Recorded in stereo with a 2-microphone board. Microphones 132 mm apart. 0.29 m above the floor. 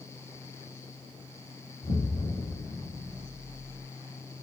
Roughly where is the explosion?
Left.